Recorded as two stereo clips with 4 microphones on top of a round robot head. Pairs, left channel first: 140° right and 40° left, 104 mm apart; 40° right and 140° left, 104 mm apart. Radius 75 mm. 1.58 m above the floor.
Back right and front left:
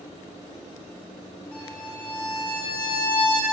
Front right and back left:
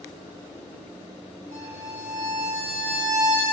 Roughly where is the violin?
Behind left.